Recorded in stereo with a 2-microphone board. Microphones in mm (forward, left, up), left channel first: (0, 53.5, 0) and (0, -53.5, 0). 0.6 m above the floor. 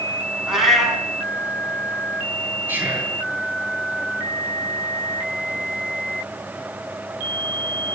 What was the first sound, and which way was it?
A cat meowing, centre (ahead or behind).